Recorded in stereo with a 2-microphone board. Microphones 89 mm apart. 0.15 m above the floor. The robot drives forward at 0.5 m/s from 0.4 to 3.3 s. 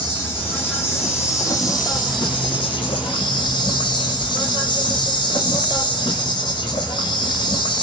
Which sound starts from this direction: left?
An insect, at 0.0 s.